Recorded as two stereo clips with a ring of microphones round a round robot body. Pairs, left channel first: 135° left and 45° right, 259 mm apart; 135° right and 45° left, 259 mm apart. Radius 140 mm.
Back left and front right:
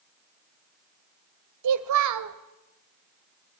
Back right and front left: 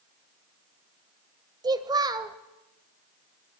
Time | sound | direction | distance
1.6 | a child speaking | 30° right | 1.5 m